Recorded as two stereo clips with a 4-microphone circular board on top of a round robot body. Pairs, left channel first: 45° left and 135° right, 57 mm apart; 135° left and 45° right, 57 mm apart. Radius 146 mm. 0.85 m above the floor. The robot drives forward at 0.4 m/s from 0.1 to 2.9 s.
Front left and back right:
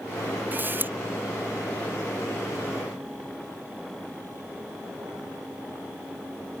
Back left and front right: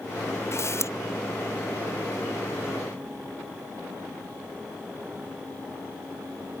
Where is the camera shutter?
170° left; by 0.9 s 175° left.